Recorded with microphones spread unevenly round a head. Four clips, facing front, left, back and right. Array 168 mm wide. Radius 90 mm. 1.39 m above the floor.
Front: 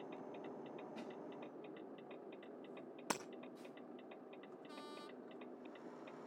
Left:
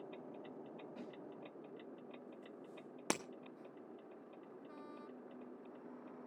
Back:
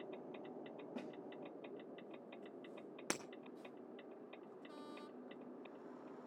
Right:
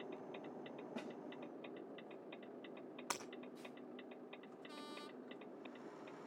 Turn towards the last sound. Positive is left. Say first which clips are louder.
# left 7 dB, front 2 dB
turn(degrees=95)